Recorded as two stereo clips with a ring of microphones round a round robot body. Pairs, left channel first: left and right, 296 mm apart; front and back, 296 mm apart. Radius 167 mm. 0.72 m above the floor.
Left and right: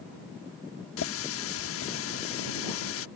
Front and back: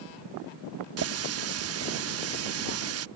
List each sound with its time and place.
1.0 s a running tap: 140° left